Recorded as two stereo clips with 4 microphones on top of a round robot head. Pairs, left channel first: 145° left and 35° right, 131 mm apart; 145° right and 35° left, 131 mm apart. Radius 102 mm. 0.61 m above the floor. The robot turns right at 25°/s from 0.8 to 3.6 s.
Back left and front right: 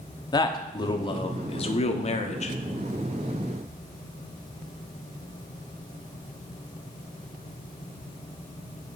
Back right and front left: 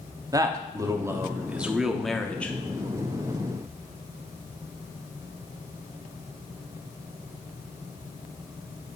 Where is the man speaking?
95° left, 1.0 m; by 2.6 s 140° left, 1.0 m.